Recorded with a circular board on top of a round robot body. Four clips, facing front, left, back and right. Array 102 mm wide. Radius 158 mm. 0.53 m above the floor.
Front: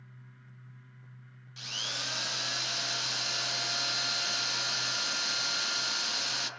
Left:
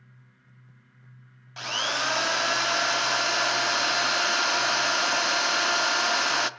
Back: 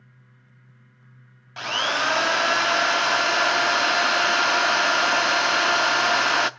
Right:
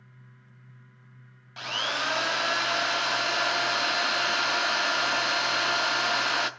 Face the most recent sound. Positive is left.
turn(degrees=175)